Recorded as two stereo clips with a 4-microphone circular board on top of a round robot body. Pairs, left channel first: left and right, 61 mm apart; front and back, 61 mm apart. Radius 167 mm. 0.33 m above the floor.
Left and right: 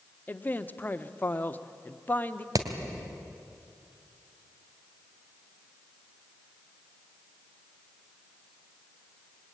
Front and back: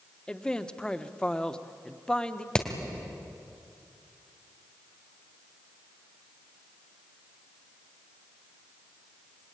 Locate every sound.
0.3 s a man speaking: 65° left, 1.3 m
2.5 s hammering: 75° right, 2.5 m